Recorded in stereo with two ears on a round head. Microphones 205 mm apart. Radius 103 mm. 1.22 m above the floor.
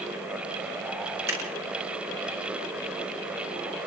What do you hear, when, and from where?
1.3 s scissors: 10° right (ahead or behind), 8.5 m